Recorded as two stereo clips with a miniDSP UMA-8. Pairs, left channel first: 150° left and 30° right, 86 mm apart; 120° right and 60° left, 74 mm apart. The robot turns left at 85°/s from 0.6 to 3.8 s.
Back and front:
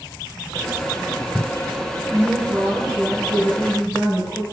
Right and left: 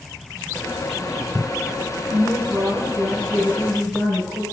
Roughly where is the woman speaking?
Ahead left.